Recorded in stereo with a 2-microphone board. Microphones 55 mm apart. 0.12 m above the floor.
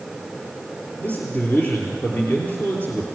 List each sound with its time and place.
1.0 s a man speaking: 30° left (ahead or behind), 3 m